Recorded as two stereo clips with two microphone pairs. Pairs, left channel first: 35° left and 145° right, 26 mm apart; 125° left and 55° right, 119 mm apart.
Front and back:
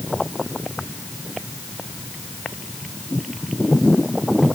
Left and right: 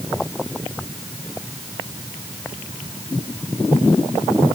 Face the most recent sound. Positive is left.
No sound to turn to.